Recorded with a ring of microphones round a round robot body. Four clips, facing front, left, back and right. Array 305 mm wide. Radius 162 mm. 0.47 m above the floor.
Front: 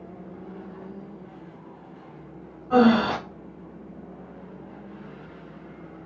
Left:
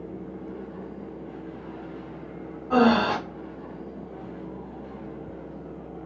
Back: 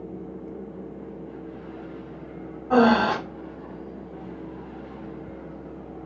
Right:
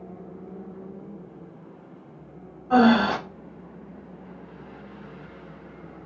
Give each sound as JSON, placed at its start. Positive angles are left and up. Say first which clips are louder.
{"t": 2.7, "sound": "breathing", "louder": "right 2 dB, even", "azimuth_deg": -170, "distance_m": 1.3}